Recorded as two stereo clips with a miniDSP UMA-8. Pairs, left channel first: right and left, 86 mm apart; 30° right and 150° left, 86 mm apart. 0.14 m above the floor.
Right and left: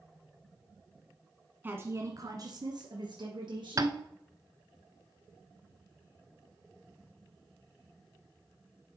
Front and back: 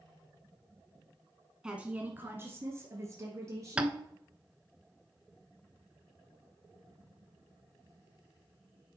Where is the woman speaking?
85° left, 1.1 m; by 4.0 s 100° left, 3 m.